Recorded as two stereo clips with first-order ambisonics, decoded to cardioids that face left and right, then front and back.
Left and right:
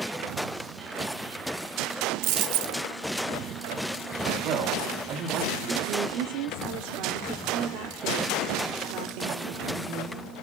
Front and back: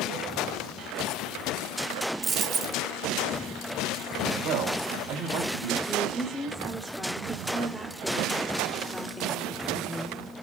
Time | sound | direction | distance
2.2 | a dropped coin | 110° right | 0.8 m
4.4 | a man speaking | 140° right | 4 m
5.8 | a woman speaking | 90° right | 1.4 m